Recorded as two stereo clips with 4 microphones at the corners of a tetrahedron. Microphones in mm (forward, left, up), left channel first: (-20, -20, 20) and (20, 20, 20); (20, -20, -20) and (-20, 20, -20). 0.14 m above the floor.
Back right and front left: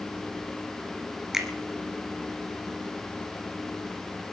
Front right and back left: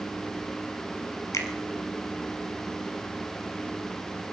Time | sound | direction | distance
1.3 | a finger snap | 35° right | 2.5 m